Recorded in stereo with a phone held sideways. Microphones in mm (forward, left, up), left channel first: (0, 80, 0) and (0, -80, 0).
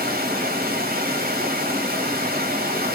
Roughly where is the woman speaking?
I don't hear a woman speaking.